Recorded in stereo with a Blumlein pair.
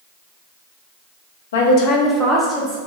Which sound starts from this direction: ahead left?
A woman speaking, at 1.5 s.